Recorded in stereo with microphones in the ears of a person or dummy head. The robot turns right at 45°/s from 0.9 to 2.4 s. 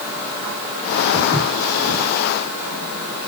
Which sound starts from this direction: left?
Footsteps, at 1.1 s.